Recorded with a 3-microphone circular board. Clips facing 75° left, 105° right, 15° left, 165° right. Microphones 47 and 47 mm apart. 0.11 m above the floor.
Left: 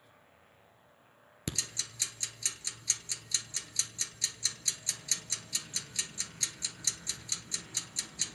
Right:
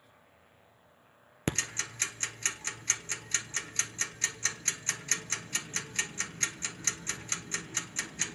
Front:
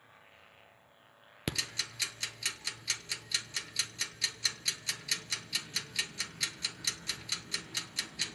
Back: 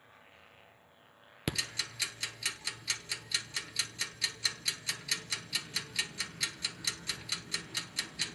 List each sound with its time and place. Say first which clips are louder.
1.5 s ticking: right 6 dB, back 1 dB; 80° right, 0.7 m